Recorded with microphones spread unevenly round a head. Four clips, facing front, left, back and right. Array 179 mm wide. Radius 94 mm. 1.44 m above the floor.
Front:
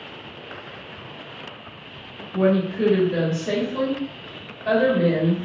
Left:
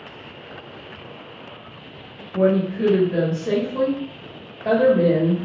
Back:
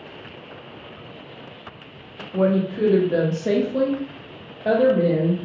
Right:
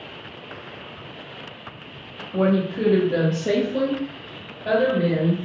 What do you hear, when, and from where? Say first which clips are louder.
2.3 s a woman speaking: left 2 dB, even; 135° right, 1.4 m; by 5.5 s 130° left, 1.1 m